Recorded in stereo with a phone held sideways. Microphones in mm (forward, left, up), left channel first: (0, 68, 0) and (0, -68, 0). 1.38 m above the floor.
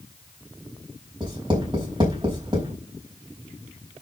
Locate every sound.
1.2 s writing: 35° right (ahead or behind), 4.5 m